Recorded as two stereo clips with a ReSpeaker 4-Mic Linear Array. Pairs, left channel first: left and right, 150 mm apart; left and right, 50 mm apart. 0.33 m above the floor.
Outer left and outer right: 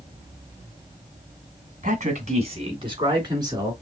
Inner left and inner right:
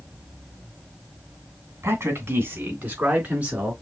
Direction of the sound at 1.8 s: 60° right (ahead or behind).